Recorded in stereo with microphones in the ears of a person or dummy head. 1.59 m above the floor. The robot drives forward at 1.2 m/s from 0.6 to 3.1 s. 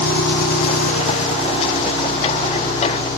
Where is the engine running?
55° left (ahead or behind), 1.1 m; by 3.2 s 15° left (ahead or behind), 3.5 m.